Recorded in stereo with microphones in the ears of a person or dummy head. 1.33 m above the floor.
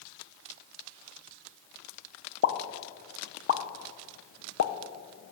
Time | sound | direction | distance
2.4 | a pop | 60° left (ahead or behind) | 0.6 m